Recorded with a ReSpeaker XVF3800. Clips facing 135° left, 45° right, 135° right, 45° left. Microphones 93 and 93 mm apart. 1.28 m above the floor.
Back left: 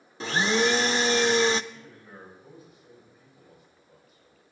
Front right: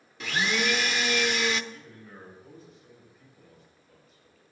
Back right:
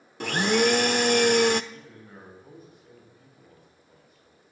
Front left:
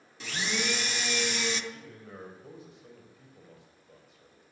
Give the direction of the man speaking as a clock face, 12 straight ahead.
10 o'clock.